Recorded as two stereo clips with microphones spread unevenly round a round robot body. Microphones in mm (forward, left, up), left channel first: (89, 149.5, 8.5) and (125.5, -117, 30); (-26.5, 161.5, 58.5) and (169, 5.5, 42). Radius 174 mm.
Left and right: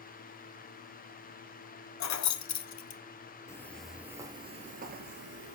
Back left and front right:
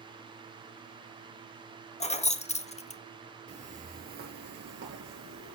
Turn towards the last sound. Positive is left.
turn(degrees=-80)